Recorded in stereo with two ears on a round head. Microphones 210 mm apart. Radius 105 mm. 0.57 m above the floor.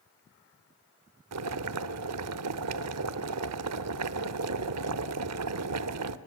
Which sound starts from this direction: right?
Boiling, at 1.3 s.